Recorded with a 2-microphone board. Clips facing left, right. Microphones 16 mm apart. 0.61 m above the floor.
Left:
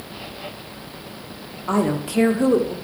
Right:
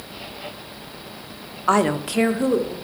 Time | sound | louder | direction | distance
1.7 | a woman speaking | right 3 dB | 45° right (ahead or behind) | 1.0 m